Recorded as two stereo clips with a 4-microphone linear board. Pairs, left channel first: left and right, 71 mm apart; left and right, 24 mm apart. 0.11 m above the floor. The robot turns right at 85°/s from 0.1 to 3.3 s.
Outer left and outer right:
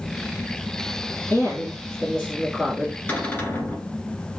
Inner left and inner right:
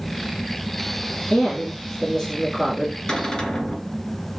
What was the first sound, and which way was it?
A woman speaking, 95° left.